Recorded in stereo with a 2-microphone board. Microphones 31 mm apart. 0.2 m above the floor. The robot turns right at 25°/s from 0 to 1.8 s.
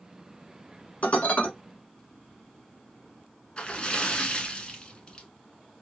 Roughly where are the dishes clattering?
Left.